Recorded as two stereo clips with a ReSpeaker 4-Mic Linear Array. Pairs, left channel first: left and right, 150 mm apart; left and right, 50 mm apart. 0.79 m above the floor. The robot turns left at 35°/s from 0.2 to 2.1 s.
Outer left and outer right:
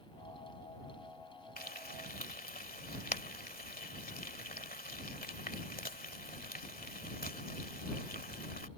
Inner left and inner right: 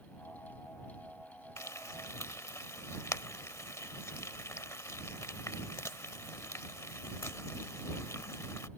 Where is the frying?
80° left; by 8.7 s 75° left (ahead or behind).